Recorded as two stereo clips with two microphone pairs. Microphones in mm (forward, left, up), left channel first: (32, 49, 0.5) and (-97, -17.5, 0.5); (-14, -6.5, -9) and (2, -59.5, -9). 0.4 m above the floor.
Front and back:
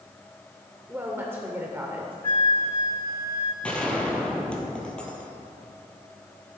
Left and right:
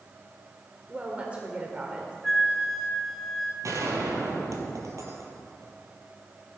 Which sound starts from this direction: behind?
A flute, at 2.2 s.